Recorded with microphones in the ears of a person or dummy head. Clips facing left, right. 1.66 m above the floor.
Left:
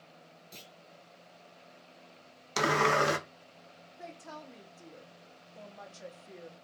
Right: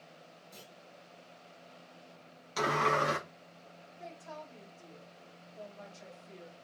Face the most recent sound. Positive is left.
turn(degrees=45)  # may be behind; listen again after turning